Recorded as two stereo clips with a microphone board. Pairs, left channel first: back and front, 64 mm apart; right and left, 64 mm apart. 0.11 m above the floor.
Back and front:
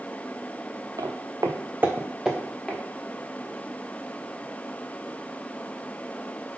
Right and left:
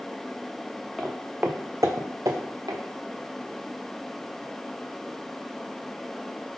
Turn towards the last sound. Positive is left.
turn(degrees=100)